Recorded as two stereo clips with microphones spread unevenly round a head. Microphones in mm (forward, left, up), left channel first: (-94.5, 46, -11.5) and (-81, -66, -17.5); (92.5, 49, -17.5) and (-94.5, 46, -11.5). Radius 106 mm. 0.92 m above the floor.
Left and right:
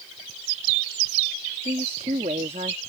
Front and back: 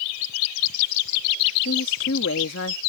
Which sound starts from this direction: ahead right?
A woman speaking, at 1.6 s.